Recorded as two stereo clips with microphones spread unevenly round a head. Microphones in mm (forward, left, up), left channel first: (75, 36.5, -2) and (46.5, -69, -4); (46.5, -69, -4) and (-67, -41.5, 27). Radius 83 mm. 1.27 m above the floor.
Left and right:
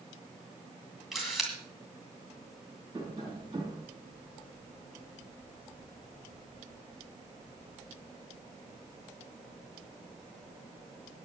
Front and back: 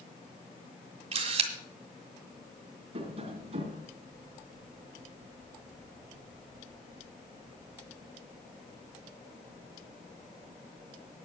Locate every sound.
1.1 s a camera shutter: 165° left, 2 m
2.9 s tapping: 170° right, 3 m